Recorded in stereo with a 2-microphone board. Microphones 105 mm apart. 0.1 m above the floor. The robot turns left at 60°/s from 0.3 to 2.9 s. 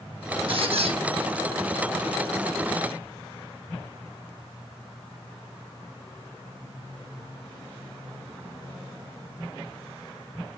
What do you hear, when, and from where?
0.5 s a squeak: 55° right (ahead or behind), 3 m; by 1.0 s 70° right (ahead or behind), 3 m